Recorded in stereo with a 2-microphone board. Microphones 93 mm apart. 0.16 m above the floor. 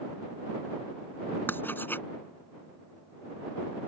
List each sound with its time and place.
1.5 s writing: 25° left (ahead or behind)